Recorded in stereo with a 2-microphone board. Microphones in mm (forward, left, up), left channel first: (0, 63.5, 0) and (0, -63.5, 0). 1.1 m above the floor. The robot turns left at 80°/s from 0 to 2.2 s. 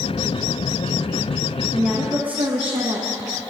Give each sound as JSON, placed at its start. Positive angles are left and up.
{"t": 1.7, "sound": "a woman speaking", "azimuth_deg": -10, "distance_m": 0.9}